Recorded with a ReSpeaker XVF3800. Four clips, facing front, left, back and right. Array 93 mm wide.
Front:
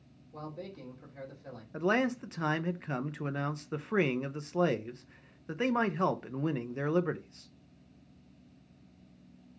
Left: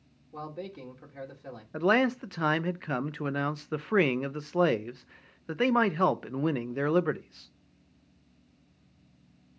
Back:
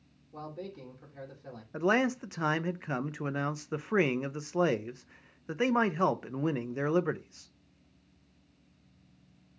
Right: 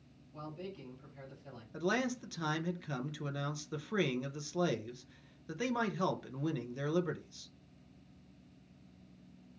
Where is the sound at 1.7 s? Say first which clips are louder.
Left 9 dB, back 2 dB; 105° left, 0.5 m.